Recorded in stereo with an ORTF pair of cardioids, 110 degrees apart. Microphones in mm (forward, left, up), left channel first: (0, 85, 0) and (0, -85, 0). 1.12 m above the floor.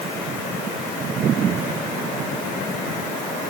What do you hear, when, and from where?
Only background noise.